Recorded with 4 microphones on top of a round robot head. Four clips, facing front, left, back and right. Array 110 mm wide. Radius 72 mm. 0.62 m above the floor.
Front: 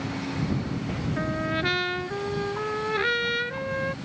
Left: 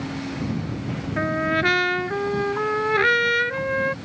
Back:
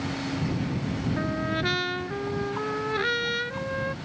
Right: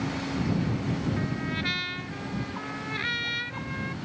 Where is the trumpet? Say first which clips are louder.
Left 9 dB, front 3 dB; 85° left.